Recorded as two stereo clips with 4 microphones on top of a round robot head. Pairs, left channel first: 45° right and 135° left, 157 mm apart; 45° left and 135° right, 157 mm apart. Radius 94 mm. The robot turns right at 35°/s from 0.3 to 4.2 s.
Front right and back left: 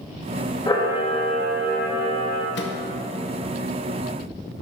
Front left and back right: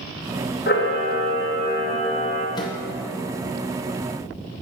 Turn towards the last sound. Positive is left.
turn(degrees=35)